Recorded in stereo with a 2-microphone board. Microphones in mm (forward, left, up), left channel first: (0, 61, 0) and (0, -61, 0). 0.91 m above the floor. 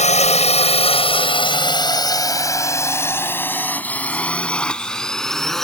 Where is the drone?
70° left (ahead or behind); by 5.7 s centre (ahead or behind).